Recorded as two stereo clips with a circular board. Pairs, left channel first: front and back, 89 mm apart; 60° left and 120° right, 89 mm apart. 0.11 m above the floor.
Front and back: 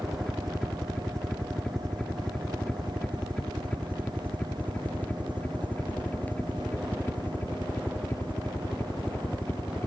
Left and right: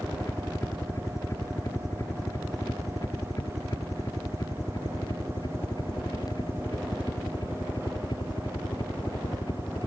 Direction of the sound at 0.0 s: 90° left.